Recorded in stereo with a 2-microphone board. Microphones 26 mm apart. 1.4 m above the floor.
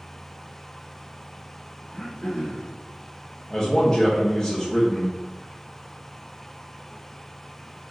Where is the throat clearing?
35° left (ahead or behind), 0.6 m.